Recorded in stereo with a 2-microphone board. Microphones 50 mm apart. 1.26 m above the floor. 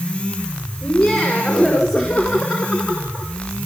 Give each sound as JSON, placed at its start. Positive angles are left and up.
{"t": 0.8, "sound": "laughter", "side_deg": 10, "distance_m": 5.0}